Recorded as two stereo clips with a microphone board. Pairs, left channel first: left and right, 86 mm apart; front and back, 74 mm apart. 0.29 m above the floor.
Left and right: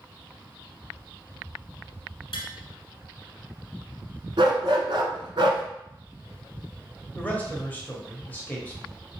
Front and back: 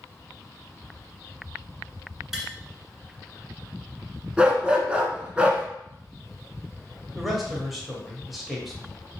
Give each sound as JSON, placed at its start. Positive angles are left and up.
{"t": 2.3, "sound": "tapping", "azimuth_deg": 95, "distance_m": 0.8}
{"t": 4.4, "sound": "a dog barking", "azimuth_deg": -105, "distance_m": 0.7}
{"t": 7.2, "sound": "a man speaking", "azimuth_deg": 95, "distance_m": 0.9}